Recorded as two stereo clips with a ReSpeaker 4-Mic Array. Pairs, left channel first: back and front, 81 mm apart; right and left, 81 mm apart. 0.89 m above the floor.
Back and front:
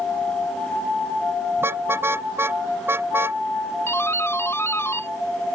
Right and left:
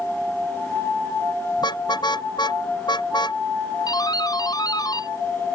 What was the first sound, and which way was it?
A car horn, 60° right.